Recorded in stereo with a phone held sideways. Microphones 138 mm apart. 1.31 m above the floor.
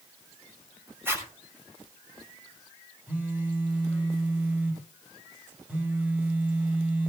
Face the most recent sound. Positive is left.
turn(degrees=-10)  # may be behind; listen again after turning